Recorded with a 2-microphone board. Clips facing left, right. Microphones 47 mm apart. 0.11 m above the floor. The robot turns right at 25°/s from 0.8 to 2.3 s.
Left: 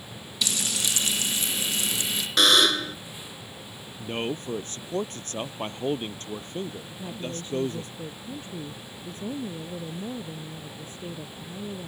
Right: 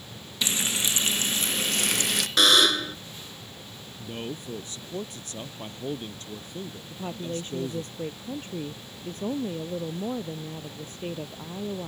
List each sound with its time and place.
0.4 s frying: 150° right; by 2.3 s 115° right
2.4 s a buzzer: centre (ahead or behind)
4.0 s a man speaking: 50° left (ahead or behind)
6.9 s a woman speaking: 50° right (ahead or behind)